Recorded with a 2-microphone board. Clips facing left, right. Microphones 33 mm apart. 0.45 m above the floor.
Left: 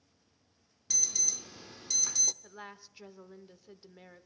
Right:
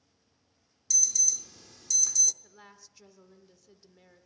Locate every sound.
0.9 s an alarm: 30° left (ahead or behind), 0.7 m
2.4 s a woman speaking: 30° left (ahead or behind), 1.1 m